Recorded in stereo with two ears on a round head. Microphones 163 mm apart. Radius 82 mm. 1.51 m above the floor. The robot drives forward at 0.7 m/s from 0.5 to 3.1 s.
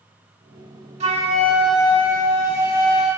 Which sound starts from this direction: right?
A flute, at 1.0 s.